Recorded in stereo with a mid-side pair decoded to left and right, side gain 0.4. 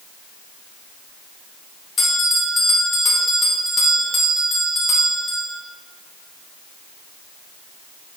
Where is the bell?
45° left, 2 m.